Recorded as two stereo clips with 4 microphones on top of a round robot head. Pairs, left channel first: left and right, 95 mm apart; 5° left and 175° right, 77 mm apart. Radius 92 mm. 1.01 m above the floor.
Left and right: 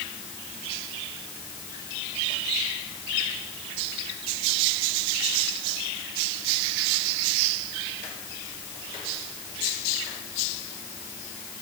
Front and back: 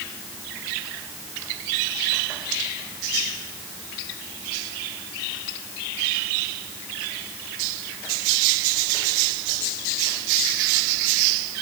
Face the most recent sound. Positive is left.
No sound to turn to.